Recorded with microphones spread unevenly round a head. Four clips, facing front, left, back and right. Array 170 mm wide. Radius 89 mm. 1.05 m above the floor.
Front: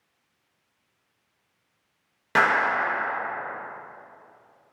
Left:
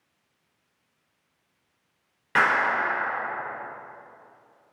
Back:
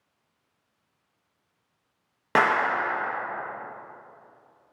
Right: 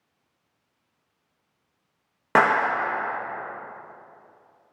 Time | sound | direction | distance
2.4 | a clap | 110° right | 1.0 m